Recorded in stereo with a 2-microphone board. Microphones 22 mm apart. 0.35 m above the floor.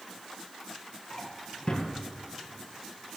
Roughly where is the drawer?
Left.